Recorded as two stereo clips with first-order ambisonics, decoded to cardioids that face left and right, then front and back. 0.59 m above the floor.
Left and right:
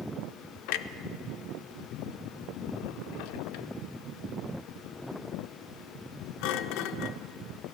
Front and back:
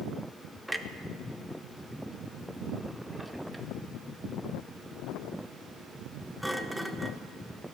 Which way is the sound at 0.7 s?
90° left.